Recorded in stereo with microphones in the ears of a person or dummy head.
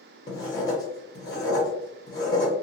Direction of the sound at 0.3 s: 25° left (ahead or behind).